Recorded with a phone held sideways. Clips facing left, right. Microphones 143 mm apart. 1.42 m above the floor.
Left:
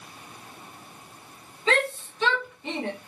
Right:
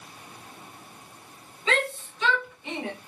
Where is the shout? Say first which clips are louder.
Left 2 dB; 40° left (ahead or behind), 2 m.